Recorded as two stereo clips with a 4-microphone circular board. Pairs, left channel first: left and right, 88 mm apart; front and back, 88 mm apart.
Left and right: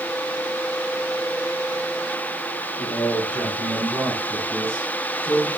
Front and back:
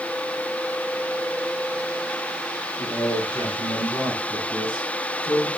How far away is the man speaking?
About 6 m.